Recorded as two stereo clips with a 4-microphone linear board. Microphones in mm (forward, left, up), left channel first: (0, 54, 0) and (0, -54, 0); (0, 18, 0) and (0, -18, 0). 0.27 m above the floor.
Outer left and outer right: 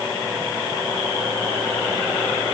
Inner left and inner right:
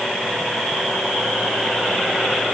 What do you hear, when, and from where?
Only background noise.